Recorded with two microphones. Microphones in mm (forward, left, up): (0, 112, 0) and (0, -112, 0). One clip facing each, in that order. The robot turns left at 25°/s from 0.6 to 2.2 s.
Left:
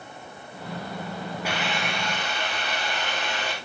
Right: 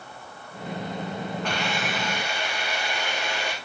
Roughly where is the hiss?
Centre.